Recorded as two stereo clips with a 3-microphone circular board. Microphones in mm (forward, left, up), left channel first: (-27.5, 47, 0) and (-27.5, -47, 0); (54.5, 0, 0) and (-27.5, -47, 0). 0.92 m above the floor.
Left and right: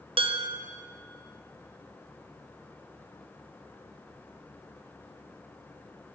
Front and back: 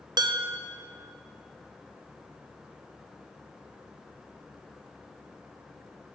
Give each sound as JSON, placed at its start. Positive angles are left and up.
{"t": 0.2, "sound": "dishes clattering", "azimuth_deg": -105, "distance_m": 0.6}